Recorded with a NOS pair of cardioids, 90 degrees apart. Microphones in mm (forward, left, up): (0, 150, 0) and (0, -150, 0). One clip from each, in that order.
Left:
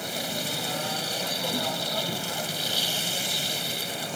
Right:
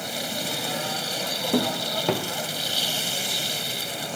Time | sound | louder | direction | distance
0.0 | a machine running | right 1 dB | 5° right | ?